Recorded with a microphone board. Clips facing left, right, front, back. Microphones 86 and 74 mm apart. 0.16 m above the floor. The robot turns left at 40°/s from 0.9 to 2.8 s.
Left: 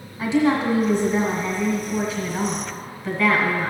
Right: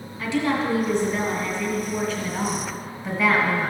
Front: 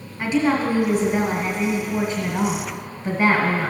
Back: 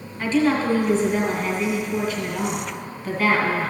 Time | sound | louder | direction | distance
0.2 | a woman speaking | left 4 dB, even | 55° left | 1.3 m